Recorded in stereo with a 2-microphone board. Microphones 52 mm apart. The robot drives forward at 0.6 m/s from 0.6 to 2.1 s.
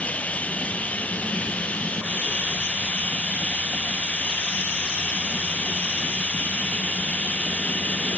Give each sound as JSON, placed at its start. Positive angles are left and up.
{"t": 0.0, "sound": "running water", "side_deg": 30}